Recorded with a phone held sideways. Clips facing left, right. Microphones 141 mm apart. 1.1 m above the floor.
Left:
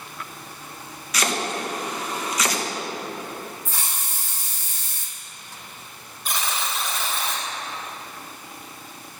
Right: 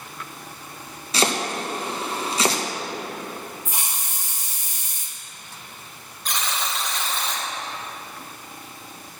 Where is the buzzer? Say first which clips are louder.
Even; 5° left (ahead or behind), 2 m.